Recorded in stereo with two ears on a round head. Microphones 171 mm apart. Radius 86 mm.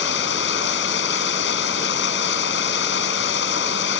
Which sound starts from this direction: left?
Running water, at 0.0 s.